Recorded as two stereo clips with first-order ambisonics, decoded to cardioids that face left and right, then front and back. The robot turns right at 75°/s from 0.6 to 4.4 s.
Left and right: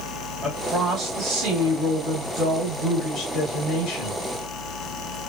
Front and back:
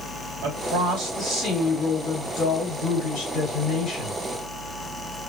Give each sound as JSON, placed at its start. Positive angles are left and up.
{"t": 0.4, "sound": "a woman speaking", "azimuth_deg": -165, "distance_m": 2.0}